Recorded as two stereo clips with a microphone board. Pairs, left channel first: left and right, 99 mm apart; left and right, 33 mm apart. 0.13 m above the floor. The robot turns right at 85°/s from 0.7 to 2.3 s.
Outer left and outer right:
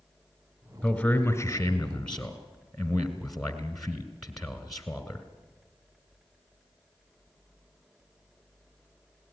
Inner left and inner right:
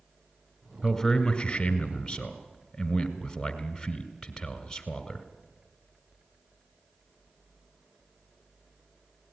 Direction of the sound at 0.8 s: 20° left (ahead or behind).